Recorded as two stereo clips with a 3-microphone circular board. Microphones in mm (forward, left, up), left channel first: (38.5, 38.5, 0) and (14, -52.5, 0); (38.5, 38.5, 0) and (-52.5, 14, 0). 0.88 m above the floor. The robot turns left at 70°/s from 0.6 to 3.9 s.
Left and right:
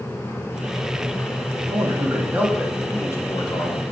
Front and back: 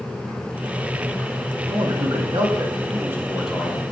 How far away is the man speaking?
About 1.3 m.